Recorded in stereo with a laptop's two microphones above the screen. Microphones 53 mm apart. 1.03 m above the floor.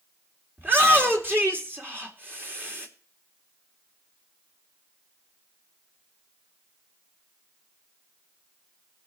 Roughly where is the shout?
Right.